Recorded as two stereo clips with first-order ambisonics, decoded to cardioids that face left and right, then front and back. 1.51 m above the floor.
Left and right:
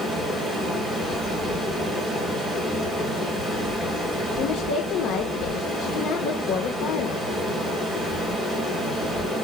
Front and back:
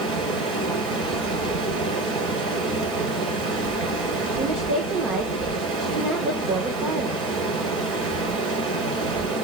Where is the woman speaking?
125° left, 1.2 m.